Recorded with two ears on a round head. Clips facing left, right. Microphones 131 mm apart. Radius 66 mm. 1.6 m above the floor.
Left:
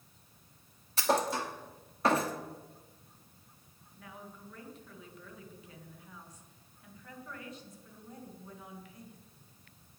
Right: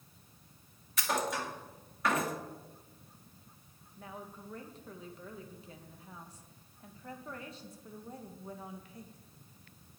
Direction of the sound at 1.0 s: 30° left (ahead or behind).